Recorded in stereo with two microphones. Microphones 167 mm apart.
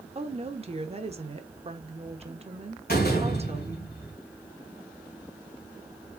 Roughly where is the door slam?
Left.